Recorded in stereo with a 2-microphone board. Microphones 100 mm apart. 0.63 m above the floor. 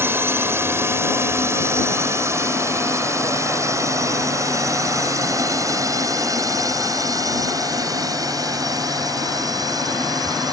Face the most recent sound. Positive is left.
turn(degrees=-40)  # may be behind; listen again after turning